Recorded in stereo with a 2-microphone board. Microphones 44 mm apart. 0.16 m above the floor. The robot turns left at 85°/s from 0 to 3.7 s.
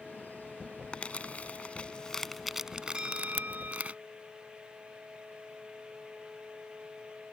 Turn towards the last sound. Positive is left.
turn(degrees=-95)